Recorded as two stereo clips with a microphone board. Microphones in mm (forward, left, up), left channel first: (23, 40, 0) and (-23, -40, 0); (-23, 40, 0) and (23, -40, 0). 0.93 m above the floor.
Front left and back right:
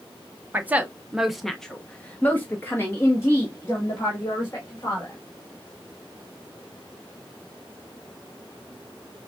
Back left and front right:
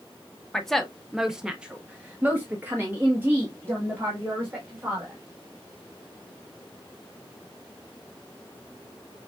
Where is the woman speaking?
165° right, 0.8 m; by 5.1 s 5° left, 2 m.